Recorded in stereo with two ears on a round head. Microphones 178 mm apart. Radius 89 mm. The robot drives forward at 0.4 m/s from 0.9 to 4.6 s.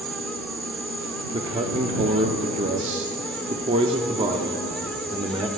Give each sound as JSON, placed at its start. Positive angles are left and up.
{"t": 0.0, "sound": "an insect", "side_deg": -75, "distance_m": 4.5}
{"t": 1.3, "sound": "a man speaking", "side_deg": -25, "distance_m": 0.8}